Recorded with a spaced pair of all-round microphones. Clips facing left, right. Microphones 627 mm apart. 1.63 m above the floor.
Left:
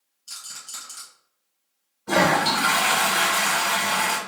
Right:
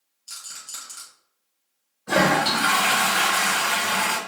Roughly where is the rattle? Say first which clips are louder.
Left 1 dB; left.